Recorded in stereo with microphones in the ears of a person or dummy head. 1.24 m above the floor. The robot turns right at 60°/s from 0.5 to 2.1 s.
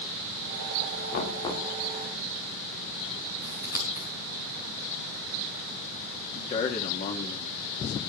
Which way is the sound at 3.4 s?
15° right (ahead or behind).